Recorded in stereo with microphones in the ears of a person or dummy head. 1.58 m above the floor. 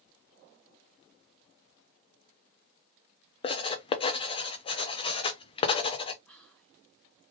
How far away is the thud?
No thud in this recording.